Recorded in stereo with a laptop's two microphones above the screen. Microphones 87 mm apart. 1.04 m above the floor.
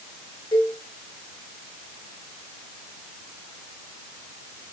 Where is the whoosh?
I don't hear a whoosh.